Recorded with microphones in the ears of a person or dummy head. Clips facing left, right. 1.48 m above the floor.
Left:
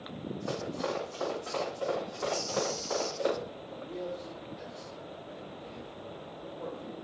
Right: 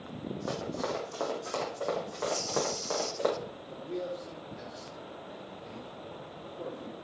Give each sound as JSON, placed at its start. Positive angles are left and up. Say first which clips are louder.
{"t": 0.5, "sound": "running footsteps", "louder": "even", "side_deg": -50, "distance_m": 4.0}
{"t": 2.3, "sound": "a bird", "louder": "even", "side_deg": -60, "distance_m": 6.0}
{"t": 3.7, "sound": "a man speaking", "louder": "right 3 dB", "side_deg": -80, "distance_m": 4.0}